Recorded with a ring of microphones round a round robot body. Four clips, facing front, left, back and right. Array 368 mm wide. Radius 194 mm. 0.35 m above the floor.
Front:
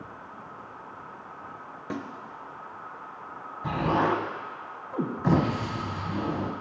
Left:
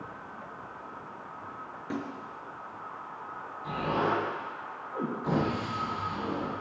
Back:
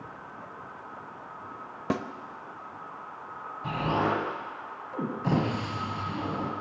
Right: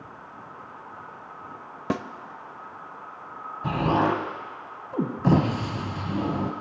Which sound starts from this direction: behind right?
A snare drum, at 1.9 s.